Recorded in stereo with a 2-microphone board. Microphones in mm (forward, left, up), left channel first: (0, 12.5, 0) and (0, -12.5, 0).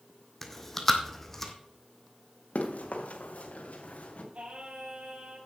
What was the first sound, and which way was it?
Chewing, 15° left (ahead or behind).